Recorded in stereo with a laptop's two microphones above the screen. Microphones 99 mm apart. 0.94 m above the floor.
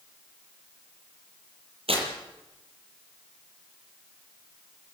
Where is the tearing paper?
75° right (ahead or behind), 7 m.